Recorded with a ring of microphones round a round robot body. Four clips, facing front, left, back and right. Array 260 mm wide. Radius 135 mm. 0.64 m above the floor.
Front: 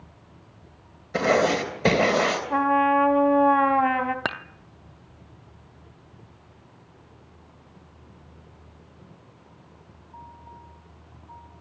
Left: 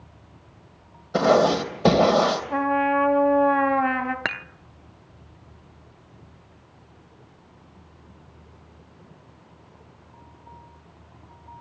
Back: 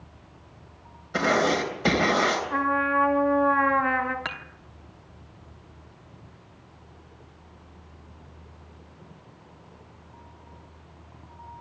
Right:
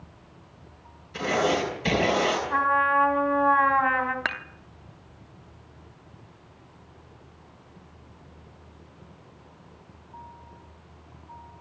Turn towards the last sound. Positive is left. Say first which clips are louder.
# left 1 dB, front 5 dB
turn(degrees=30)